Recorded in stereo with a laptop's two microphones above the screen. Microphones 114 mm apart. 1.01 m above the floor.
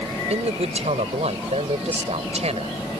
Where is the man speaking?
80° right; by 2.8 s 75° right (ahead or behind).